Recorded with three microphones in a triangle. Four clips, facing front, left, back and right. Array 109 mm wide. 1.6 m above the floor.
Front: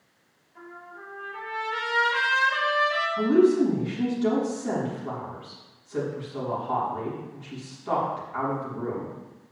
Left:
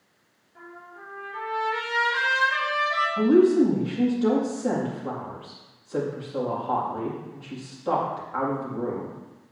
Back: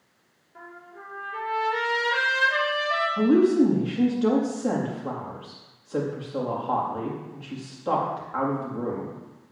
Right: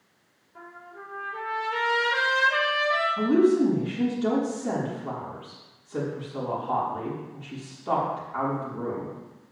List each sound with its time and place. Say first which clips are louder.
0.6 s a trumpet: even, even; 160° right, 4.5 m
3.2 s a woman speaking: left 3 dB, back 1 dB; 145° left, 3.5 m